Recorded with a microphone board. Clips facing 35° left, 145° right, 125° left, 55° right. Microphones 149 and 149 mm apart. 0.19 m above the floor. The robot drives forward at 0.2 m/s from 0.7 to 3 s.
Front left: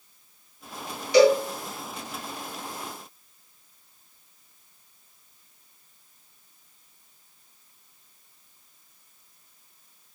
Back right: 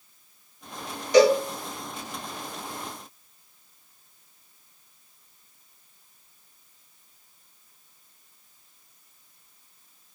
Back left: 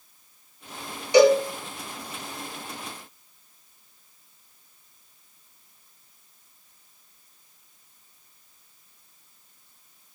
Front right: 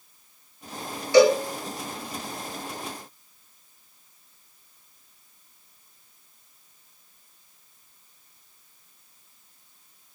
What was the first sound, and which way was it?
A cowbell, 170° right.